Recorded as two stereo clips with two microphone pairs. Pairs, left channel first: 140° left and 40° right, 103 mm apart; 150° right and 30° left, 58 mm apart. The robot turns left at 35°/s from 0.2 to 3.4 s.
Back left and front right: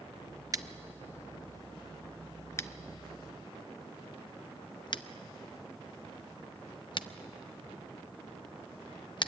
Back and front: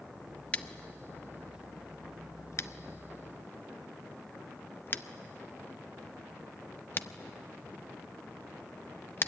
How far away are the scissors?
About 0.6 m.